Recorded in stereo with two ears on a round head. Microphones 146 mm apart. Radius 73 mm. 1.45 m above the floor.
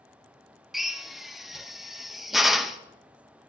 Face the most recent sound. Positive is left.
turn(degrees=0)  # may be behind; listen again after turning